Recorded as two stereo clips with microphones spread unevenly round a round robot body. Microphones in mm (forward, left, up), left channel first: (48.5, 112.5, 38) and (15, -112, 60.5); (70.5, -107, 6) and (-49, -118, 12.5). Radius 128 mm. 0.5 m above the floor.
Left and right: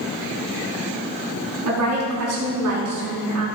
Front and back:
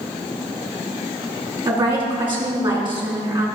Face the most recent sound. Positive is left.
turn(degrees=-125)